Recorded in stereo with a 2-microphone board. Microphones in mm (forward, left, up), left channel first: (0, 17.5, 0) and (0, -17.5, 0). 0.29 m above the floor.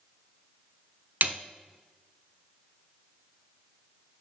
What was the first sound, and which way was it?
A snare drum, 60° right (ahead or behind).